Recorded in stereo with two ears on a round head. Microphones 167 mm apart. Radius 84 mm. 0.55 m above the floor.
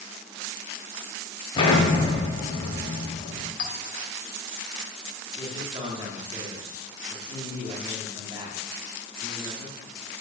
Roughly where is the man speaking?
Right.